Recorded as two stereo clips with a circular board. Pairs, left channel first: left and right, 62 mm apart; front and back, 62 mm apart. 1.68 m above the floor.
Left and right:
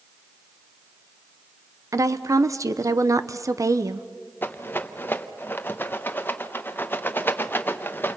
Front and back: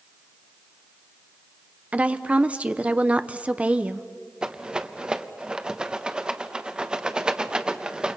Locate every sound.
1.9 s a woman speaking: 115° right, 0.9 m
4.4 s a rattle: 110° left, 0.9 m